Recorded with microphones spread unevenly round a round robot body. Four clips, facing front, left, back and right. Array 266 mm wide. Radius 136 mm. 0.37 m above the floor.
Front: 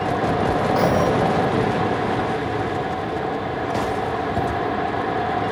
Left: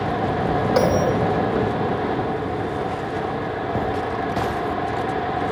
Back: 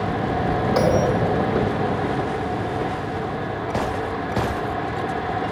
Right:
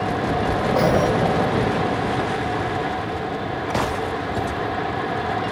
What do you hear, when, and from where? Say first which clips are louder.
0.8 s a bell: even, back 1 dB; 125° left, 3 m